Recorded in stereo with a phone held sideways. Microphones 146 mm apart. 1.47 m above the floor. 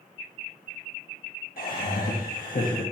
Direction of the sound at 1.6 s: 75° left (ahead or behind).